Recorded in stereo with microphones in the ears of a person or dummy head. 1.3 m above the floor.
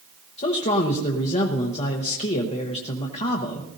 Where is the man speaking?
35° left (ahead or behind), 1.0 m.